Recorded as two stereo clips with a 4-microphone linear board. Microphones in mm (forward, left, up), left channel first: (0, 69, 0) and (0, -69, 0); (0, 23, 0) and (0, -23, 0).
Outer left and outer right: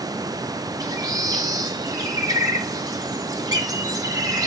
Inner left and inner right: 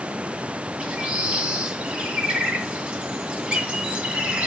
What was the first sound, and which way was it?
A bird, 25° right (ahead or behind).